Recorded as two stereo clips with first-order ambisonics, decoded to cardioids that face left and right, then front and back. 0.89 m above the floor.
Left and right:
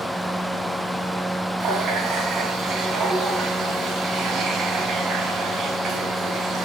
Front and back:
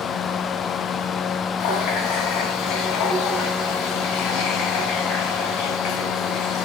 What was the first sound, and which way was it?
A running tap, 30° right.